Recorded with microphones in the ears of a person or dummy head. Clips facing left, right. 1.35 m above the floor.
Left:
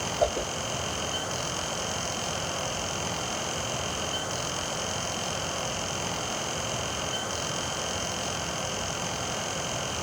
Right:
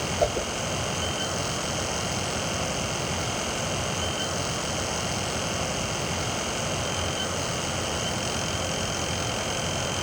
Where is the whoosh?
5° right (ahead or behind), 0.7 m.